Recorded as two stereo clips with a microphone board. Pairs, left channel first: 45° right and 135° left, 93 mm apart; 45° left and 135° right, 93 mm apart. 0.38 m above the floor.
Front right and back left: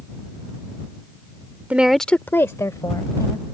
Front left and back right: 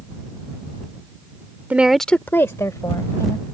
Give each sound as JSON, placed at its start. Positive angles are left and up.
{"t": 1.7, "sound": "a woman speaking", "azimuth_deg": -175}